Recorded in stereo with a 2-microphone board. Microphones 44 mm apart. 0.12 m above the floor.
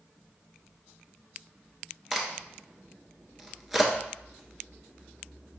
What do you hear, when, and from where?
2.1 s a crack: 5° right (ahead or behind), 1.0 m